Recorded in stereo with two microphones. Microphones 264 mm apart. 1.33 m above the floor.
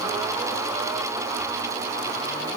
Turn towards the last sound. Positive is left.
No sound to turn to.